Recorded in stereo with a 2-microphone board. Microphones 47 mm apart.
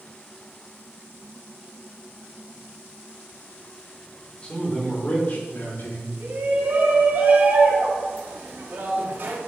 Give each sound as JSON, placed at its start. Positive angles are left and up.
{"t": 4.4, "sound": "a man speaking", "side_deg": 25, "distance_m": 3.0}
{"t": 6.2, "sound": "a shout", "side_deg": -50, "distance_m": 1.9}